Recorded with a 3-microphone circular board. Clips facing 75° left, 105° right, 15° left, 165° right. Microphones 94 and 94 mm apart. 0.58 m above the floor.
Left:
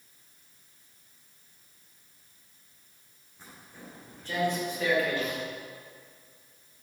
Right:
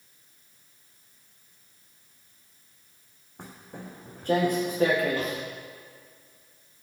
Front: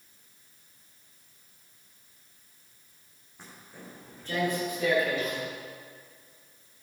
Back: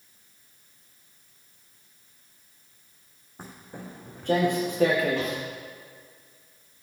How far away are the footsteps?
About 2 m.